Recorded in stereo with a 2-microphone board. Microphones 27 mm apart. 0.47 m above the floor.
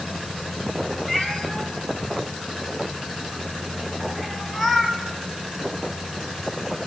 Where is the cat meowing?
Centre (ahead or behind), 3 m.